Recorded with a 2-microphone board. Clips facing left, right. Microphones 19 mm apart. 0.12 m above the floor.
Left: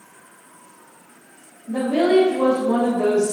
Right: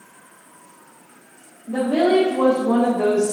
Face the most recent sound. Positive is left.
turn(degrees=-50)  # may be behind; listen again after turning